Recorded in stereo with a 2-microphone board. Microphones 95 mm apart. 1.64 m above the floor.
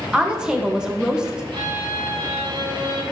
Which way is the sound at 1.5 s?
70° right (ahead or behind).